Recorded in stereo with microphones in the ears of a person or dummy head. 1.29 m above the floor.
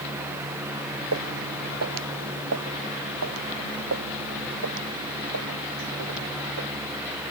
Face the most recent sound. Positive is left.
turn(degrees=-70)  # may be behind; listen again after turning